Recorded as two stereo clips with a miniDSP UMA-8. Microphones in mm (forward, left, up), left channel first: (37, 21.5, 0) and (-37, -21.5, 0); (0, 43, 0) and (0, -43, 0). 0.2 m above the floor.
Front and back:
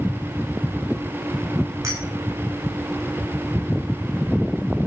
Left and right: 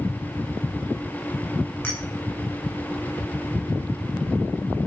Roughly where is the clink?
Behind.